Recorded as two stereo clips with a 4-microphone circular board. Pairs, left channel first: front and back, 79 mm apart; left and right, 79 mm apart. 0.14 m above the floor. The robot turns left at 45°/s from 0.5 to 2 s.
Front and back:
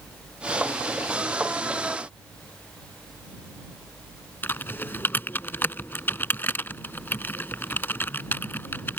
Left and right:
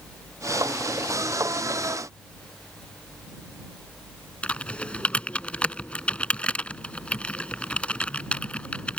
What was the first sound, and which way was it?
Typing on a keyboard, 30° left.